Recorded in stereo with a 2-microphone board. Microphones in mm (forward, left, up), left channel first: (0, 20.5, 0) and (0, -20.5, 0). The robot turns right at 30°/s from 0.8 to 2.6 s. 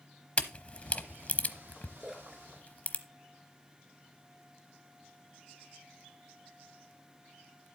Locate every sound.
0.4 s a camera shutter: 30° left (ahead or behind), 0.9 m; by 3.0 s 45° left (ahead or behind), 0.9 m
2.0 s a splash: 10° right (ahead or behind), 3 m; by 4.0 s 10° left (ahead or behind), 3 m